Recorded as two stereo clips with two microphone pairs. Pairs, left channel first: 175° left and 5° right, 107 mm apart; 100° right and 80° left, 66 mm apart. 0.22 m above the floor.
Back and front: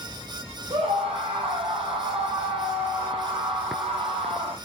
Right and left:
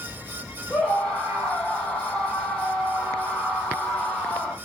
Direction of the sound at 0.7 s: 30° right.